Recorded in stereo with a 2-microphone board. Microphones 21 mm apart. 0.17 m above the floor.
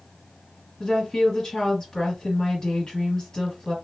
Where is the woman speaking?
20° left (ahead or behind), 2 m.